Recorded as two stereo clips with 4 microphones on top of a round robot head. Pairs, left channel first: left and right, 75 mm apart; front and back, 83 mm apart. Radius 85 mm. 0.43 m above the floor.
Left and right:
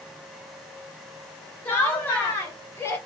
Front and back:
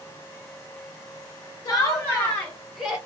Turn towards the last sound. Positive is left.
turn(degrees=115)